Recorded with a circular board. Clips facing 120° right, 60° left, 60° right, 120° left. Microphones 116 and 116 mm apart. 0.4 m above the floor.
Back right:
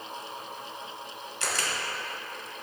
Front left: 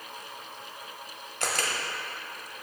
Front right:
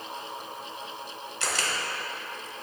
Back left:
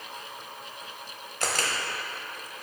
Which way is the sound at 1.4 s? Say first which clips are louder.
Front left 2 dB, back left 2 dB; 90° left.